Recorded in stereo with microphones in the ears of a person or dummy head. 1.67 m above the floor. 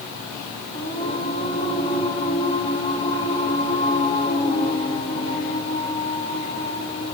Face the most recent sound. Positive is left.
turn(degrees=35)  # may be behind; listen again after turning